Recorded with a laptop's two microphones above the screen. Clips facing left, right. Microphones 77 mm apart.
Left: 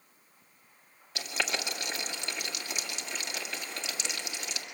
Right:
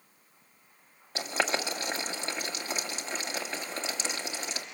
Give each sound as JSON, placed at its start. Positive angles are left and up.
{"t": 1.1, "sound": "boiling", "side_deg": -35, "distance_m": 1.8}